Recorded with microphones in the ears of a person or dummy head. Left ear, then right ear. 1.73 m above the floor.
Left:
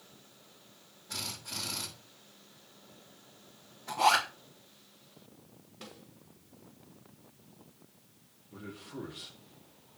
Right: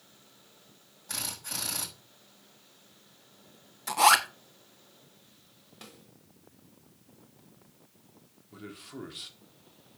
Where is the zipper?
60° right (ahead or behind), 1.1 m.